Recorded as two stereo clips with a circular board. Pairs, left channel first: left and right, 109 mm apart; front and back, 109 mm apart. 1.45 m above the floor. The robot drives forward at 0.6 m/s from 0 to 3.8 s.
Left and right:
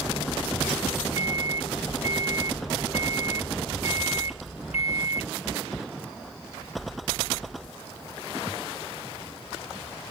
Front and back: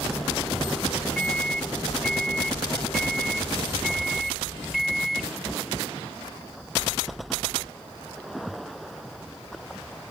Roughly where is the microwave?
Left.